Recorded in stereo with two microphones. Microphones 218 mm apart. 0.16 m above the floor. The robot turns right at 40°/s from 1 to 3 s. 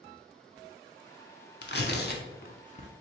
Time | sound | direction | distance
1.6 | tearing paper | 50° left (ahead or behind) | 0.6 m